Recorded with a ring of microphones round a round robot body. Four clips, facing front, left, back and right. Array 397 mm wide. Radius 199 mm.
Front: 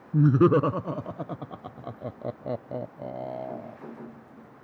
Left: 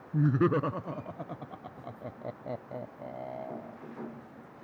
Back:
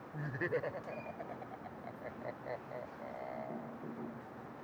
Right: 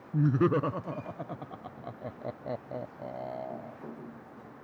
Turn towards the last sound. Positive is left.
turn(degrees=-5)